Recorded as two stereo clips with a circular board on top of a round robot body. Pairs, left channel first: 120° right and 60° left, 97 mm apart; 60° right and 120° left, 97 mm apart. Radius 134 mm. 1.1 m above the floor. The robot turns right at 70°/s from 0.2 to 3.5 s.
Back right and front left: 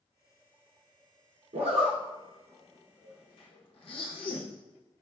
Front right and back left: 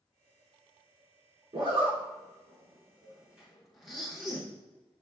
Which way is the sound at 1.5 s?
70° left.